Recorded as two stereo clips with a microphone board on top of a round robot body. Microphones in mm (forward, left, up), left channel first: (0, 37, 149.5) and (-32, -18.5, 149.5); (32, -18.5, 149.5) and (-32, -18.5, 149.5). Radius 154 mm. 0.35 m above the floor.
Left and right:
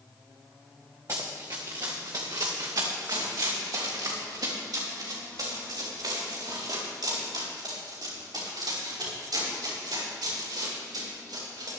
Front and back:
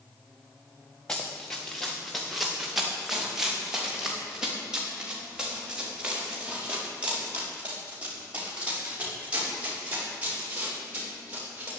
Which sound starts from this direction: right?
Running footsteps, at 1.1 s.